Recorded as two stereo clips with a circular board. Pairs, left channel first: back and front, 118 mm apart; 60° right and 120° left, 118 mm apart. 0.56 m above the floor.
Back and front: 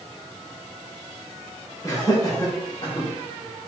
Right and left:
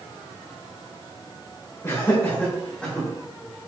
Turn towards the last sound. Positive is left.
turn(degrees=-145)